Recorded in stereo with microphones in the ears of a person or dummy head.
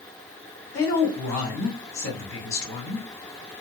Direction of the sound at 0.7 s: 15° left (ahead or behind).